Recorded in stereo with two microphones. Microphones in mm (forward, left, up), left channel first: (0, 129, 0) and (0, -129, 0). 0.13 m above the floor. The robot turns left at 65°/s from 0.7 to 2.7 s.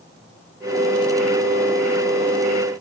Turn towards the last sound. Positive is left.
No sound to turn to.